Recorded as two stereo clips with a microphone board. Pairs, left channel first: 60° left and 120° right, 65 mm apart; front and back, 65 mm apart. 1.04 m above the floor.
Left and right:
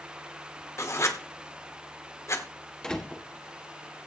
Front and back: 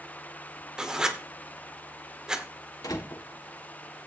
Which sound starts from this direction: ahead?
A door slam, at 2.8 s.